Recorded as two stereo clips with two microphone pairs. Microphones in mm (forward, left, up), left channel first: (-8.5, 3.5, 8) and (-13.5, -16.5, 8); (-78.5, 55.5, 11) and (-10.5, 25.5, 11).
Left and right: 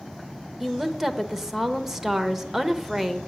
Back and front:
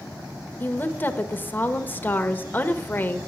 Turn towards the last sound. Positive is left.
turn(degrees=-175)